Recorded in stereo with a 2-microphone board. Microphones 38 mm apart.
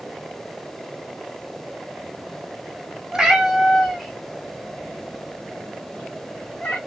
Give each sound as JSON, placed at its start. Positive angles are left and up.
{"t": 3.1, "sound": "a cat meowing", "side_deg": -15, "distance_m": 0.9}